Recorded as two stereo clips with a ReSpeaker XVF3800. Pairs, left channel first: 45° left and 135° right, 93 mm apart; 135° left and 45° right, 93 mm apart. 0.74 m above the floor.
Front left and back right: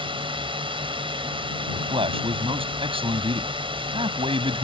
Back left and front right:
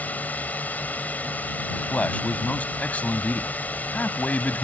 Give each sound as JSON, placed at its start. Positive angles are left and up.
{"t": 0.0, "sound": "a drone", "azimuth_deg": -155}
{"t": 1.7, "sound": "a man speaking", "azimuth_deg": -150}